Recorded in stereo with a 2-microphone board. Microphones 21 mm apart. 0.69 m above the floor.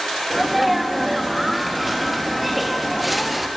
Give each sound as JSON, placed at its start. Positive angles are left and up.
{"t": 0.3, "sound": "a sneeze", "side_deg": -5, "distance_m": 0.6}